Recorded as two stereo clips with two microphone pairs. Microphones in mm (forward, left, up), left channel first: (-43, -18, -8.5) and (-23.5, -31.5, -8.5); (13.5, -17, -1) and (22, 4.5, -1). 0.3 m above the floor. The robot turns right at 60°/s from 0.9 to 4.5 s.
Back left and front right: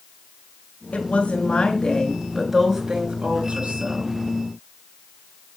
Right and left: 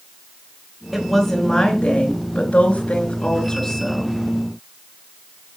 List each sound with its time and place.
0.9 s a woman speaking: 150° left, 3.5 m; by 4.2 s 15° right, 3.5 m